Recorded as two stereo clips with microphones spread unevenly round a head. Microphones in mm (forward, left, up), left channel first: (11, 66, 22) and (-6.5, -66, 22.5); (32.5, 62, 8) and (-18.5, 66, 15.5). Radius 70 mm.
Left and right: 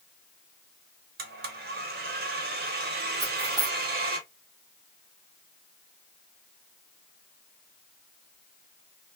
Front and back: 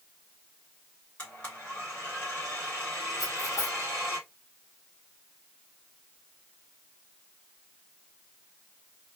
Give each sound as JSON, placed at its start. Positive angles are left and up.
{"t": 1.2, "sound": "a blender", "azimuth_deg": -85, "distance_m": 1.1}
{"t": 3.2, "sound": "cutlery clinking", "azimuth_deg": -35, "distance_m": 1.5}